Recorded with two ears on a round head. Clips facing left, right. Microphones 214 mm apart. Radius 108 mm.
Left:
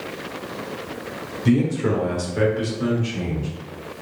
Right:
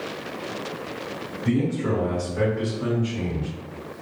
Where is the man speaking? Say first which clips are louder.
Left 4 dB; 55° left (ahead or behind), 1.4 m; by 3.5 s 30° left (ahead or behind), 1.4 m.